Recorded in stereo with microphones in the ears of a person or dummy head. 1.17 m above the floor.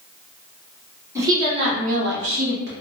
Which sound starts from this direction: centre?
A woman speaking, at 1.1 s.